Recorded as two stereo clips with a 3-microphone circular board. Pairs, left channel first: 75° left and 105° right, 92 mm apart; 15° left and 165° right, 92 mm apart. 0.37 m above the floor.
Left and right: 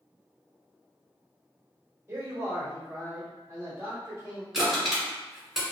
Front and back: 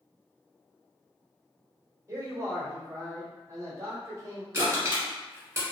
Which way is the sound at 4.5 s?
175° left.